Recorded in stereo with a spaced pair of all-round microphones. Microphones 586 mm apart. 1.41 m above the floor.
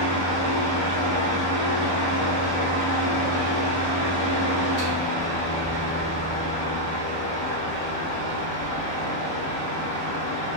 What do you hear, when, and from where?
0.0 s a fan: 40° right (ahead or behind), 1.2 m